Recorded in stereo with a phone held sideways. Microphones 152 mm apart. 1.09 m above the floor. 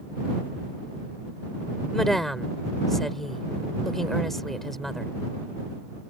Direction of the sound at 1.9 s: Centre (ahead or behind).